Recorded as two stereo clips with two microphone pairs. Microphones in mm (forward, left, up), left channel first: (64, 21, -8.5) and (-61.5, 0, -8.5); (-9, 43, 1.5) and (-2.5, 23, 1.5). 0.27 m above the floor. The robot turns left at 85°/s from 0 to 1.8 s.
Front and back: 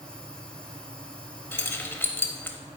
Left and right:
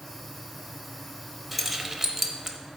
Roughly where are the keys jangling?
Ahead.